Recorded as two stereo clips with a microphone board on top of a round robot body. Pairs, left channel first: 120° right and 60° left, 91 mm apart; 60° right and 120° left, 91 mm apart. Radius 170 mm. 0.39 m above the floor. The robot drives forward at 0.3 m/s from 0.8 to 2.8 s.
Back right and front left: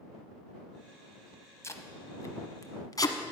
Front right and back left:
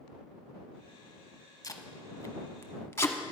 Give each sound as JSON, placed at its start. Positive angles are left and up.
{"t": 1.6, "sound": "tape being pulled", "azimuth_deg": -80, "distance_m": 1.2}